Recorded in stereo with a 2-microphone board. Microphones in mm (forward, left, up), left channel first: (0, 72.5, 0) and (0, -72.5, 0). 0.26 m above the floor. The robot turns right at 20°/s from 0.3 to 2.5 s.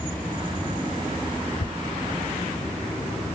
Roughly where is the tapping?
Left.